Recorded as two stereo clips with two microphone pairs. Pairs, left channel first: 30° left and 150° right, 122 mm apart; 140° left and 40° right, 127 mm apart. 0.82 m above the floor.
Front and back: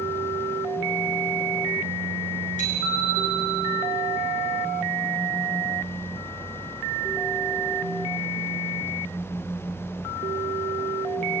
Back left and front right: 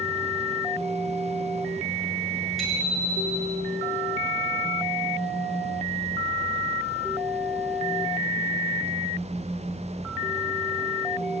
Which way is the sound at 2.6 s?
50° left.